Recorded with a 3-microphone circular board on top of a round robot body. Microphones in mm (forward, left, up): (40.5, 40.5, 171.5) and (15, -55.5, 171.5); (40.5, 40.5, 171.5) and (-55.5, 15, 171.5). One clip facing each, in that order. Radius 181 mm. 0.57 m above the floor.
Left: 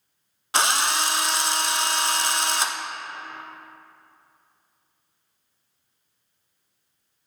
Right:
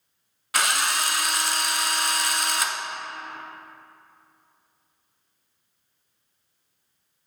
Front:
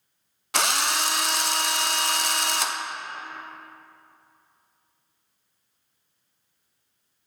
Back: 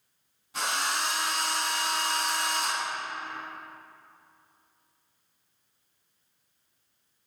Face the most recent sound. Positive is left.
turn(degrees=10)